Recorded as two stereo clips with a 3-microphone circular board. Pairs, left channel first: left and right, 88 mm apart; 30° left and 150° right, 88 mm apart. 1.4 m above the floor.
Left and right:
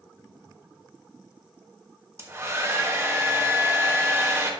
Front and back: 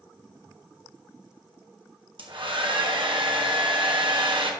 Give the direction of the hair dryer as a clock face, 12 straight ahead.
5 o'clock.